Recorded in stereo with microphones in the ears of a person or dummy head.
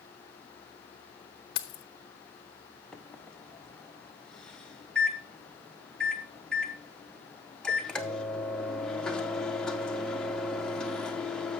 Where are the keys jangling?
30° left (ahead or behind), 0.9 m.